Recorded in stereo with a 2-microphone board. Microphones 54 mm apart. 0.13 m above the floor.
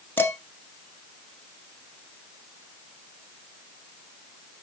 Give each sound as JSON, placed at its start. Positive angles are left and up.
{"t": 0.2, "sound": "dishes clattering", "side_deg": 35, "distance_m": 1.1}